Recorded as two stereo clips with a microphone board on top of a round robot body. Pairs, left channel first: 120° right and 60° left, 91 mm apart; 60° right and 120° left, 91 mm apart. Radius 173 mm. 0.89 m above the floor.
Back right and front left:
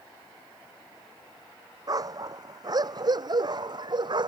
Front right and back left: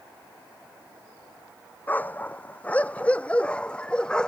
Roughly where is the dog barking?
Ahead.